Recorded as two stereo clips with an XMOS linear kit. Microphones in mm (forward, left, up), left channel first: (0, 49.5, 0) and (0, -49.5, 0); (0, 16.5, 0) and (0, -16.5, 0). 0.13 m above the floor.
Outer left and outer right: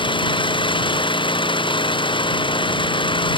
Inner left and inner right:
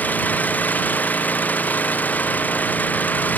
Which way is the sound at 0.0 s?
55° left (ahead or behind).